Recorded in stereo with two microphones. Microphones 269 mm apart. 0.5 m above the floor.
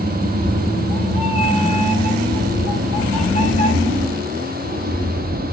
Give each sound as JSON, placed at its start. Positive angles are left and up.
{"t": 0.2, "sound": "a cat meowing", "side_deg": 60, "distance_m": 7.5}